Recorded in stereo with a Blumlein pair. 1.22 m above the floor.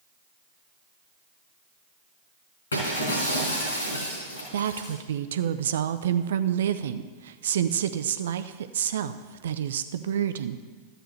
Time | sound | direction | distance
2.7 | breaking glass | 70° left | 4 m
4.5 | a woman speaking | 60° right | 0.5 m